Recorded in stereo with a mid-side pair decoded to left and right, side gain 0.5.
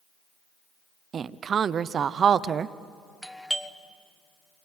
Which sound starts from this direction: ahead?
A doorbell, at 3.2 s.